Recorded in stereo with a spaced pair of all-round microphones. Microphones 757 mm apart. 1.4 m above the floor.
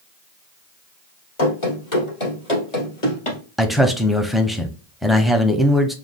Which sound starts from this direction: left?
Running footsteps, at 1.4 s.